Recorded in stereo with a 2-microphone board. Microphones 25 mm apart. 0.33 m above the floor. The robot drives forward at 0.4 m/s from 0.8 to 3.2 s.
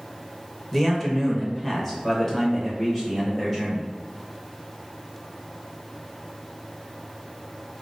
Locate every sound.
0.7 s a man speaking: 5° left (ahead or behind), 0.8 m